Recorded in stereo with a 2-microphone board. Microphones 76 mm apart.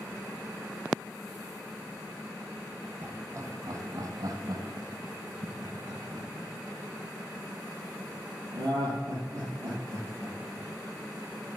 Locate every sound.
3.0 s laughter: 30° right (ahead or behind), 1.8 m; by 10.6 s 40° right (ahead or behind), 6.5 m